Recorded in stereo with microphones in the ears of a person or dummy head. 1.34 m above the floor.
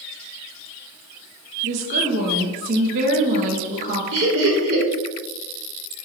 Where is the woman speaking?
50° right (ahead or behind), 0.7 m.